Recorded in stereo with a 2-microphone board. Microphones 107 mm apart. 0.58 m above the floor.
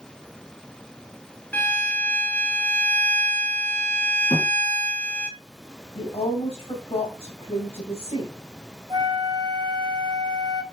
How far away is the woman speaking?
About 3 m.